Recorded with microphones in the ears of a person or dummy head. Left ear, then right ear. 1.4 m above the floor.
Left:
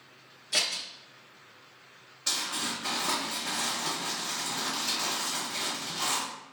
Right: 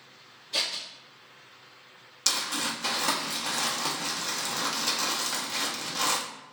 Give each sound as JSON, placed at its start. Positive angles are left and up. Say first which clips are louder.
{"t": 0.5, "sound": "scissors", "louder": "left 1 dB", "side_deg": 55, "distance_m": 0.9}
{"t": 2.3, "sound": "crumpling", "louder": "right 3 dB", "side_deg": -85, "distance_m": 0.7}